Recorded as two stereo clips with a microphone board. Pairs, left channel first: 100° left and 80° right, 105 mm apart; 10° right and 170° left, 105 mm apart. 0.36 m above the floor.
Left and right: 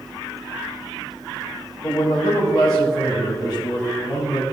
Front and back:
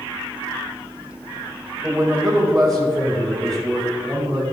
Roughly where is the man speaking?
Left.